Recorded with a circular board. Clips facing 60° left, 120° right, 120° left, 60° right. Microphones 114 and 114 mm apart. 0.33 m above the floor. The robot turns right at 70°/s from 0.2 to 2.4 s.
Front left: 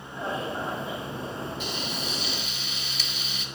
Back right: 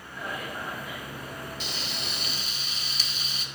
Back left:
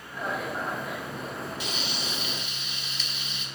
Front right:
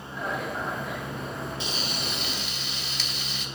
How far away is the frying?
About 0.5 m.